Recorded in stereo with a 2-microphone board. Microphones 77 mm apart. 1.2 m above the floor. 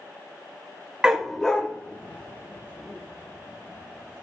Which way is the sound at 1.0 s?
10° right (ahead or behind).